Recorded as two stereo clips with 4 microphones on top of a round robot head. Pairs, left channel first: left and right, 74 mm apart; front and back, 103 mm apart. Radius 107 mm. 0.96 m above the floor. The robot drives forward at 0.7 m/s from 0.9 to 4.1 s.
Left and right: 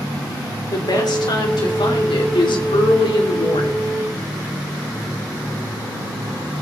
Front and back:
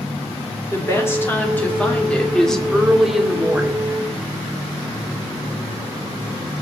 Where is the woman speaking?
65° left, 3 m; by 3.8 s 105° left, 3 m.